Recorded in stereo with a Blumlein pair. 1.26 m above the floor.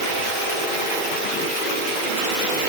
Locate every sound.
Only background noise.